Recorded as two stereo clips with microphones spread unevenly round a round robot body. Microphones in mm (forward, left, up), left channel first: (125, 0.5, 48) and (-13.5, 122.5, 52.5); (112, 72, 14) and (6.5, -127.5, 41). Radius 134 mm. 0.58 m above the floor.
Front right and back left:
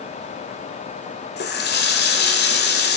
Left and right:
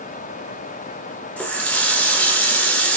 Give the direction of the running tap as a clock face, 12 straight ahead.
1 o'clock.